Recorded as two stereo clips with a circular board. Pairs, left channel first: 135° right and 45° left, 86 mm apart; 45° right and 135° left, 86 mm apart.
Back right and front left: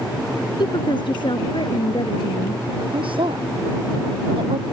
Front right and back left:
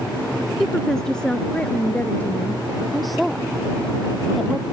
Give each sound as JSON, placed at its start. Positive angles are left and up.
{"t": 0.6, "sound": "a woman speaking", "azimuth_deg": -130}
{"t": 2.9, "sound": "a woman speaking", "azimuth_deg": 45}